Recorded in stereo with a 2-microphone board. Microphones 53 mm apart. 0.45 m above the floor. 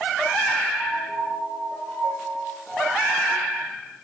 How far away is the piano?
About 6.5 m.